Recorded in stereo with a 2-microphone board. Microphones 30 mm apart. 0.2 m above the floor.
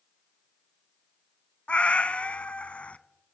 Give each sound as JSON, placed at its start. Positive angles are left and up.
{"t": 1.7, "sound": "a cat meowing", "side_deg": 45, "distance_m": 0.5}